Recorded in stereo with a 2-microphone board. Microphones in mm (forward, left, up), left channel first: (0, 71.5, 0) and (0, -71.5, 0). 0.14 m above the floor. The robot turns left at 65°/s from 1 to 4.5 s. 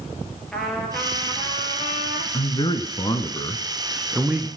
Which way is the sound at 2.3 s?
110° left.